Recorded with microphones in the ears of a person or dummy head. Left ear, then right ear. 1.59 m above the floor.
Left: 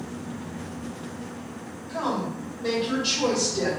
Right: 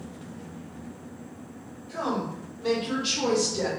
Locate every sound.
1.9 s a woman speaking: 10° left (ahead or behind), 1.6 m; by 3.7 s 35° right (ahead or behind), 1.2 m